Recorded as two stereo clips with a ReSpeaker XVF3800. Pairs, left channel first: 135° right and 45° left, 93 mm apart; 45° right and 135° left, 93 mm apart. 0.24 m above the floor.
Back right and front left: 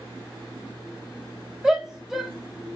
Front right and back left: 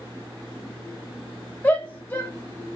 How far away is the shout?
About 1.1 m.